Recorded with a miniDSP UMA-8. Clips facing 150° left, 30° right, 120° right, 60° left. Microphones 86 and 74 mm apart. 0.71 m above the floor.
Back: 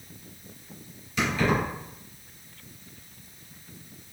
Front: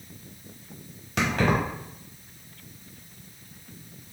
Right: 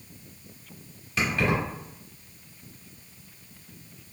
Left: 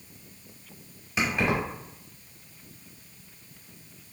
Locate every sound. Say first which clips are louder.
1.2 s keys jangling: front 1 dB, even; 15° right, 1.2 m